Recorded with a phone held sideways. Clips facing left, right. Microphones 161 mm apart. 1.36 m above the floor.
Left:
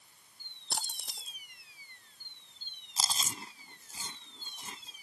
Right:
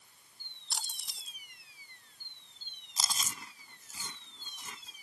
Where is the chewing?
30° left (ahead or behind).